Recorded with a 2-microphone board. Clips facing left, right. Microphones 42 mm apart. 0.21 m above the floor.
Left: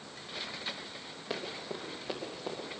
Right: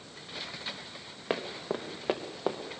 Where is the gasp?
No gasp in this recording.